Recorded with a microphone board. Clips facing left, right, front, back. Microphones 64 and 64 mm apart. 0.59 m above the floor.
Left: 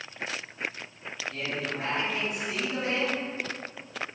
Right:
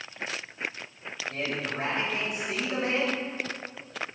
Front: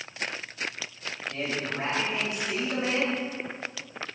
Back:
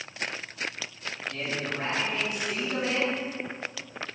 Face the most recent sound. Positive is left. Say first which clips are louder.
# right 1 dB, front 1 dB
turn(degrees=-55)